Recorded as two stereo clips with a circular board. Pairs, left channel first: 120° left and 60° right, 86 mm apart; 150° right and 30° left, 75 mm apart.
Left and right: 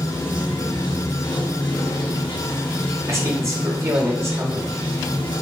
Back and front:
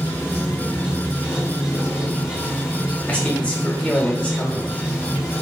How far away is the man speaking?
About 1.2 m.